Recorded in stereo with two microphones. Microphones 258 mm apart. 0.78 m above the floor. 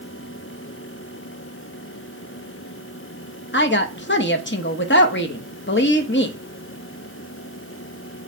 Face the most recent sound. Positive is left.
turn(degrees=45)  # may be behind; listen again after turning